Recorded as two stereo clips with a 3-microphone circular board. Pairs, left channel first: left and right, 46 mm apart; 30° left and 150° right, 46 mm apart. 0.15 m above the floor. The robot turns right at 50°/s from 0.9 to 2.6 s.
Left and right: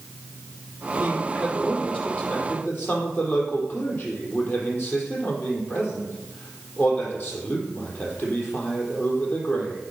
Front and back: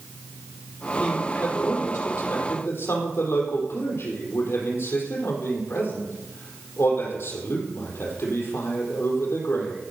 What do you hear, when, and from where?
1.0 s a man speaking: 35° right, 4.5 m; by 9.8 s 45° left, 4.5 m